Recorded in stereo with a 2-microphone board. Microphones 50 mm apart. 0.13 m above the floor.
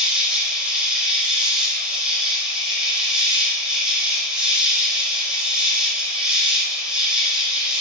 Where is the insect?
10° right (ahead or behind), 4 m.